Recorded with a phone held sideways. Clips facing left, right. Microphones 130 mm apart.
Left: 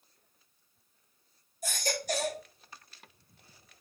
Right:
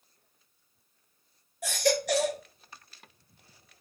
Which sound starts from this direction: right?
A baby crying, at 1.6 s.